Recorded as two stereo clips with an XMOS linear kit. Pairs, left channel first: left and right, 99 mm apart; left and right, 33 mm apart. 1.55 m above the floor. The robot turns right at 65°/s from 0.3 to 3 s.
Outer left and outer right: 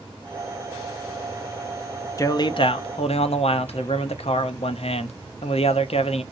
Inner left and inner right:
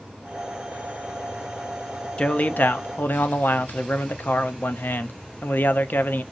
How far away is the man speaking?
About 0.5 m.